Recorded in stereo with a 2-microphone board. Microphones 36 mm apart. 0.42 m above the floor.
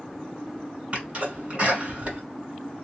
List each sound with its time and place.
0.9 s a sneeze: 40° right (ahead or behind), 1.9 m